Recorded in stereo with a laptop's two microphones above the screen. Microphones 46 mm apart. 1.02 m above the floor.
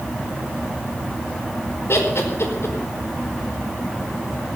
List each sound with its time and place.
1.9 s laughter: 75° left (ahead or behind), 4.5 m